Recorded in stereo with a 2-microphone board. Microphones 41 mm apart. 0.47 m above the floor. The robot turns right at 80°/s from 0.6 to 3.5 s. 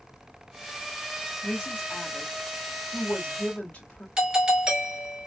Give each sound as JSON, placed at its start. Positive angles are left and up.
{"t": 1.4, "sound": "a woman speaking", "side_deg": -20, "distance_m": 1.7}
{"t": 4.2, "sound": "a doorbell", "side_deg": -20, "distance_m": 1.8}